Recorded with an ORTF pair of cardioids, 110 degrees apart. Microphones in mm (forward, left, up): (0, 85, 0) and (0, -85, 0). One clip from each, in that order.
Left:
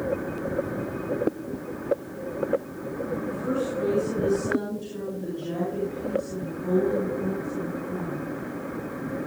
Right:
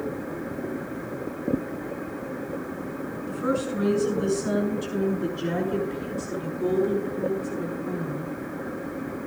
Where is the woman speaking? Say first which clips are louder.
Right 5 dB; 70° right, 7 m; by 8.3 s 80° right, 9.5 m.